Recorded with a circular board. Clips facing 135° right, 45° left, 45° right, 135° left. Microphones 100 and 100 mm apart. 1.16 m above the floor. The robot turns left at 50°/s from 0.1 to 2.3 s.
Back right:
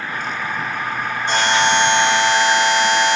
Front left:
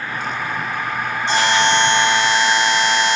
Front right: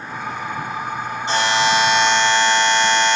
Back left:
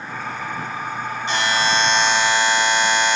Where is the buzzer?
100° right, 3.5 m; by 3.2 s 150° right, 3.5 m.